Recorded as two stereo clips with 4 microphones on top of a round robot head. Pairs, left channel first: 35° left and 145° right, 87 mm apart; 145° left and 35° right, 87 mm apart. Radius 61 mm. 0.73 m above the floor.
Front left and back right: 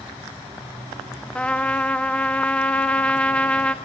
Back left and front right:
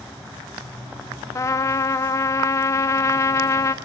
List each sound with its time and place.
1.4 s a trumpet: 105° left, 1.4 m